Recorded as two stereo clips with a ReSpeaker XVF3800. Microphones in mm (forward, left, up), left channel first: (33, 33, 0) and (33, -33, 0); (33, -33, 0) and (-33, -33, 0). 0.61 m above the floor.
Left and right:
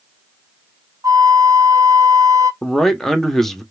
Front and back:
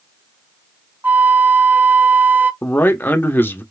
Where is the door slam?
No door slam in this recording.